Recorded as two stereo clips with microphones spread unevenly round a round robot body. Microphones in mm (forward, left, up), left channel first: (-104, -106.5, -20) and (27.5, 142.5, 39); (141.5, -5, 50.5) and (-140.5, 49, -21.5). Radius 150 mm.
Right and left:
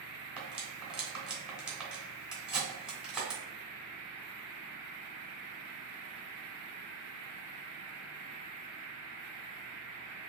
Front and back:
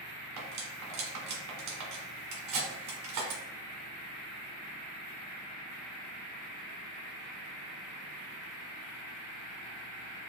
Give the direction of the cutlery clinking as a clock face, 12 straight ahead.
7 o'clock.